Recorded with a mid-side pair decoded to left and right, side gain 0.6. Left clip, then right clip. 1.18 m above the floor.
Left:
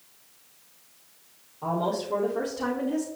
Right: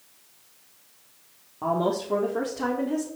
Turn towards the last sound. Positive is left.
turn(degrees=-30)